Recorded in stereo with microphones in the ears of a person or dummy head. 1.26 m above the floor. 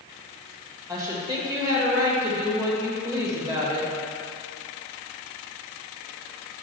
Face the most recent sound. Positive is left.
turn(degrees=-20)  # may be behind; listen again after turning